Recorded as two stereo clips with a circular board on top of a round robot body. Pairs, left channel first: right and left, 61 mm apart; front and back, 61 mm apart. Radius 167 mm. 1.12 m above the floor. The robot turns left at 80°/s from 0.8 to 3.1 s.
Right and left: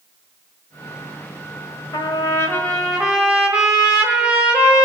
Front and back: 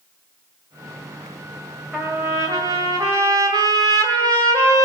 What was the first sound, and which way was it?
A trumpet, 100° right.